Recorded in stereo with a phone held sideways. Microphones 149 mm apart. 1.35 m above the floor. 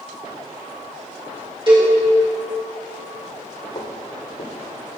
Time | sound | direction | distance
1.7 | a cowbell | 35° right (ahead or behind) | 2.5 m
3.8 | footsteps | 50° left (ahead or behind) | 2.0 m